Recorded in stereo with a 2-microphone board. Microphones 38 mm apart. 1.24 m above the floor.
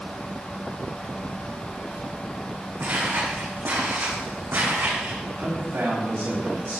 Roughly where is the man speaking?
Right.